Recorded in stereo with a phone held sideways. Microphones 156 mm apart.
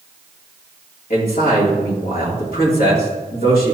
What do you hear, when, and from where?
1.1 s a man speaking: 70° left (ahead or behind), 2.5 m